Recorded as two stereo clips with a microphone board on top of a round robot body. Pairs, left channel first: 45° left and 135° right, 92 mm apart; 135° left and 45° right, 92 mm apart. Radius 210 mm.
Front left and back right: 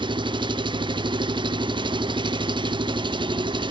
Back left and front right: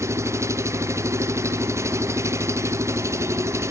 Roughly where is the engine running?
Right.